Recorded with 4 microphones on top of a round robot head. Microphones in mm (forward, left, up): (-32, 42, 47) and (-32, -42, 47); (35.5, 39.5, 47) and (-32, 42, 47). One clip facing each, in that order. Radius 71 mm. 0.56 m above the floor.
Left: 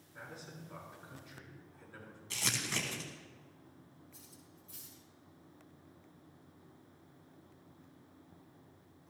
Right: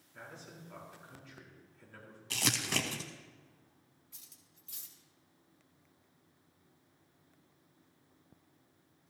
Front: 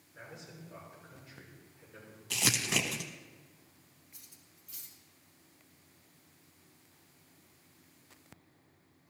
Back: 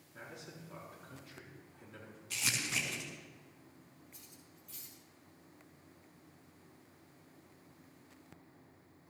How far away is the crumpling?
About 0.6 m.